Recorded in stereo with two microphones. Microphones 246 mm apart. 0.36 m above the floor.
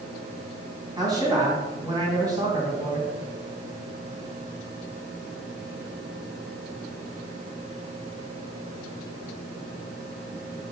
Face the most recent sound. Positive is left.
turn(degrees=-15)  # may be behind; listen again after turning